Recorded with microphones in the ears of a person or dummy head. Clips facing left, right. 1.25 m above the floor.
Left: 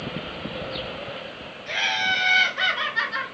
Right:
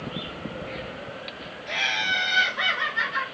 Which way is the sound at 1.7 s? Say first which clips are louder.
Left 4 dB; 25° left (ahead or behind).